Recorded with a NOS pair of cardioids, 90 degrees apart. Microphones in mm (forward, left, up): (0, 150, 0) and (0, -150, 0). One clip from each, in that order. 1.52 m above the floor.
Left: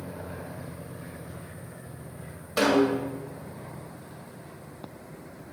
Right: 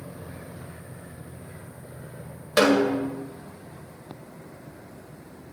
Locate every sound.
2.6 s a snare drum: 40° right, 1.8 m